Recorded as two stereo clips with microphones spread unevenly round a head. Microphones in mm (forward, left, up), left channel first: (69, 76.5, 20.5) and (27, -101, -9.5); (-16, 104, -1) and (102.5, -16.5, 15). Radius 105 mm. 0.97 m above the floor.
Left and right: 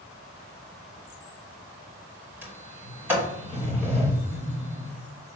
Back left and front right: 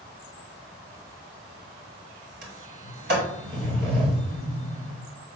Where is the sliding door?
25° right, 3 m.